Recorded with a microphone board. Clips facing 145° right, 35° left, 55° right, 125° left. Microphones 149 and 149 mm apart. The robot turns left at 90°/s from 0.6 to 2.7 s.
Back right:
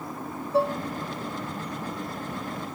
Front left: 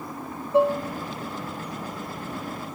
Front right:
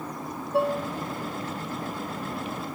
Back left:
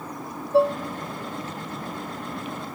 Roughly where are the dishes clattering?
Left.